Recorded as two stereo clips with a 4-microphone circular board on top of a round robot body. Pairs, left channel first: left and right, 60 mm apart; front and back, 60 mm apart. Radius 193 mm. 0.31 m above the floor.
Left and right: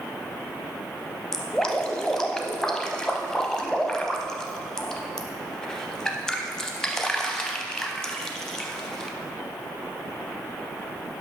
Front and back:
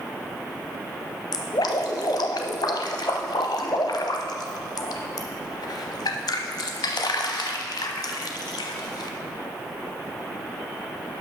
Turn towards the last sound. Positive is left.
turn(degrees=10)